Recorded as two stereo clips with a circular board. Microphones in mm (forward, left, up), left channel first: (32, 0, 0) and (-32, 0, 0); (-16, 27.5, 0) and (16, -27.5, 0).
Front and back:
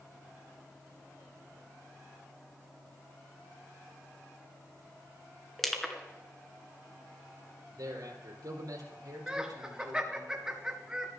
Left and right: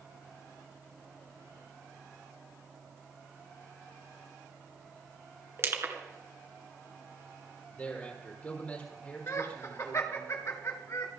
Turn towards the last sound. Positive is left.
turn(degrees=105)